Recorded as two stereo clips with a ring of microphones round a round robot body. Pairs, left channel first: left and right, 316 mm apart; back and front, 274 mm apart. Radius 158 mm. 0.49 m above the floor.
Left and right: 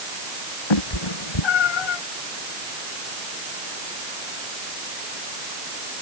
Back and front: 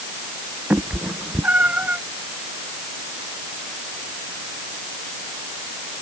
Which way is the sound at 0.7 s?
85° left.